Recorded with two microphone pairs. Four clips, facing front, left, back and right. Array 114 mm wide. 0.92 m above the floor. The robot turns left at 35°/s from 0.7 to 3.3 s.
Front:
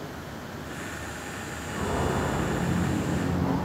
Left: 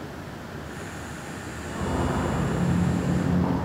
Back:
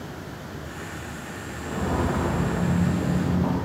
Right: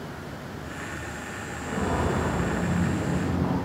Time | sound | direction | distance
1.6 | footsteps | 145° right | 3.5 m